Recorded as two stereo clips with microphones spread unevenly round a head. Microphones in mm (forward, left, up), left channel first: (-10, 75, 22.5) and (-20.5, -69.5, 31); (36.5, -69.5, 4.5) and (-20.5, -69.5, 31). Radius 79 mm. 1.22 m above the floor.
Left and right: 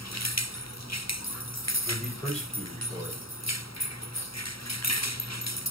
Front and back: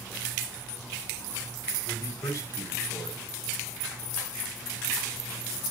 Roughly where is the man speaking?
Ahead.